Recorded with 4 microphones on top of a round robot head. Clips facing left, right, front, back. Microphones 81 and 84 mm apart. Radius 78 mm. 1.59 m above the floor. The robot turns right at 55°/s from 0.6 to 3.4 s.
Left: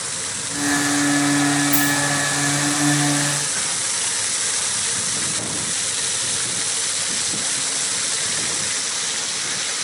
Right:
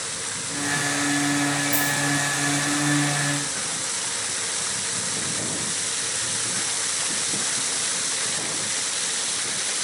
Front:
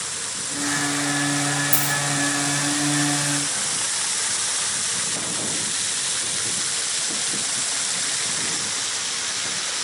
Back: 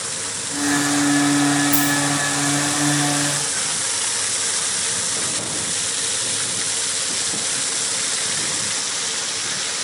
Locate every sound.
1.7 s a dropped coin: 15° right, 1.0 m; by 1.9 s straight ahead, 1.0 m